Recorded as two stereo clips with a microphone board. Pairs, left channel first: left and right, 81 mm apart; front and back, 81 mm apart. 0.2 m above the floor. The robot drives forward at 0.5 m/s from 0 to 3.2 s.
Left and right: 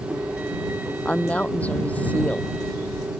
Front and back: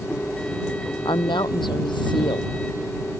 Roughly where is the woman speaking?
Ahead.